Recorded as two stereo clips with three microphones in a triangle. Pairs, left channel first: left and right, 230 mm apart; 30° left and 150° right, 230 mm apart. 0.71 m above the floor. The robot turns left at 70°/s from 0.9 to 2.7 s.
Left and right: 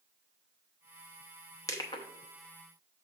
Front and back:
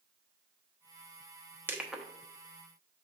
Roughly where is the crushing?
Behind left.